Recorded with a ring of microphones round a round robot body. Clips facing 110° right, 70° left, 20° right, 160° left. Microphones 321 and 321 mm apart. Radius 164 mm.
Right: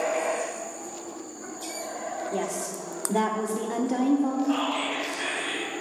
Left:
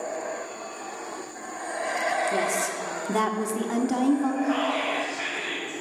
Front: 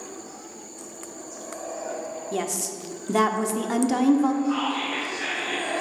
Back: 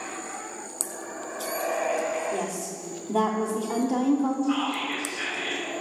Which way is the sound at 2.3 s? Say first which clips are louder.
Left 2 dB, front 2 dB; 10° left.